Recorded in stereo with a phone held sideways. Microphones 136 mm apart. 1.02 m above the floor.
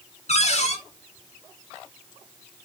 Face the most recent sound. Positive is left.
turn(degrees=55)  # may be behind; listen again after turning